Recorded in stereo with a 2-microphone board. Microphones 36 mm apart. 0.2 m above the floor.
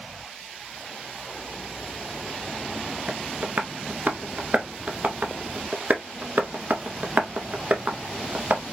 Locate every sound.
3.1 s tapping: 50° right (ahead or behind), 0.7 m